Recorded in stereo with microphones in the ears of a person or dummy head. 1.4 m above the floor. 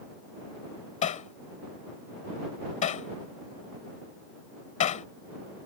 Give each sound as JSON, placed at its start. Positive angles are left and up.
{"t": 1.0, "sound": "hammering", "side_deg": 40}